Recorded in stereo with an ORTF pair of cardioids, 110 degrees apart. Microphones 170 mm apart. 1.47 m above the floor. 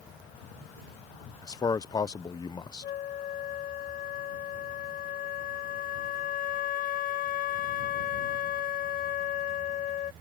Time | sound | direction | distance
1.4 | a man speaking | 25° left | ?
2.8 | a flute | 55° left | ?